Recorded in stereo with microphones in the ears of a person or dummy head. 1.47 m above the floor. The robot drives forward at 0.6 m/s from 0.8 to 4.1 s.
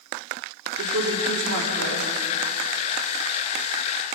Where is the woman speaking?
80° right, 4 m; by 2.1 s 90° right, 4 m.